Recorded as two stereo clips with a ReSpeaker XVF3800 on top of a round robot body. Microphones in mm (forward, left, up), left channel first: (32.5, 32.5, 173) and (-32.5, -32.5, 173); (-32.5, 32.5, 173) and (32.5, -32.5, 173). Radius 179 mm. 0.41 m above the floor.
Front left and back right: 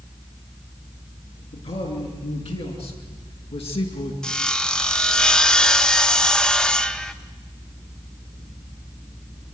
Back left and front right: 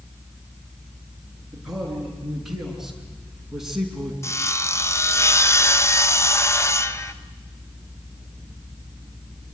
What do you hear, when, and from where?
1.5 s a man speaking: 40° left, 7.5 m
4.2 s sawing: 120° left, 1.5 m